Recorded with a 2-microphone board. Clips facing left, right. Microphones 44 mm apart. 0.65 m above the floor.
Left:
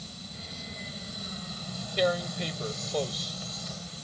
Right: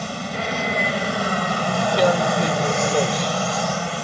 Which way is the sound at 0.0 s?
65° right (ahead or behind).